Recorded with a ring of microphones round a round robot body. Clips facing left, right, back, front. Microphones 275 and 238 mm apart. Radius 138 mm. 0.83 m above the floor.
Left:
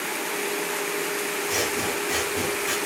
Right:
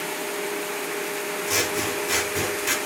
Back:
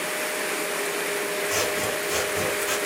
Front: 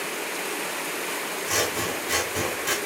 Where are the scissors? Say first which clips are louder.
Right 2 dB, back 2 dB; 45° right, 0.6 m.